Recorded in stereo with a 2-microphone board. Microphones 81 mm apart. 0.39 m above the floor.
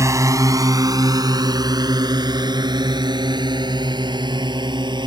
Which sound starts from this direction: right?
A drone, at 0.0 s.